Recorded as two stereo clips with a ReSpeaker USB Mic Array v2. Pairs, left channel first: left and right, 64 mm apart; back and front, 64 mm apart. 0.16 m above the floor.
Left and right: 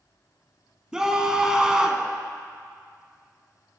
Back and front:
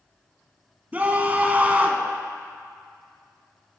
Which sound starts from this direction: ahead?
A scream, at 0.9 s.